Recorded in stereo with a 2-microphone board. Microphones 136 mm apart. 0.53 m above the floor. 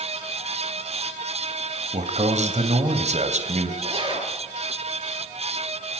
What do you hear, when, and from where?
1.9 s a man speaking: 55° right (ahead or behind), 2.5 m
3.8 s a zipper: 35° right (ahead or behind), 4.5 m